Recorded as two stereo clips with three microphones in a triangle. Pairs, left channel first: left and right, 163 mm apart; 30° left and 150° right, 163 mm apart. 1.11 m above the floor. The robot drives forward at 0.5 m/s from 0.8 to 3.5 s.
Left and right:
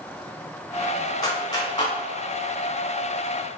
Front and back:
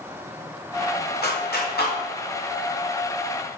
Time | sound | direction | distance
1.2 | a clap | 25° left | 3 m